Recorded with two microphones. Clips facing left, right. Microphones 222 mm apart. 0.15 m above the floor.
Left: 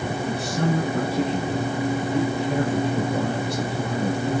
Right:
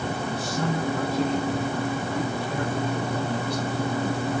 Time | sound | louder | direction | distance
0.3 | a man speaking | left 5 dB | 60° left (ahead or behind) | 3 m